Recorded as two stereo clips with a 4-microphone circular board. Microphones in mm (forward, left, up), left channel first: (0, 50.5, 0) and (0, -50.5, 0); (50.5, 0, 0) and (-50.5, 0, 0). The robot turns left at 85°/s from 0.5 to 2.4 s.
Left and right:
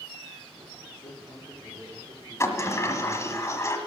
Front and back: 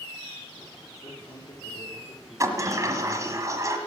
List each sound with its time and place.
0.9 s a man speaking: 60° left, 5 m; by 3.4 s 60° right, 5 m
2.4 s a sliding door: 140° left, 1.5 m